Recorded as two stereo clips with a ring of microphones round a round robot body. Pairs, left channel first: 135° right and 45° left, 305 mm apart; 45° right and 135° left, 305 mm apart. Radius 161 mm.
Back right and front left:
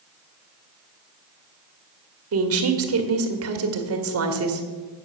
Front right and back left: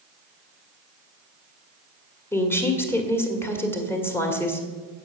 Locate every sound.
2.3 s a woman speaking: 35° left, 1.7 m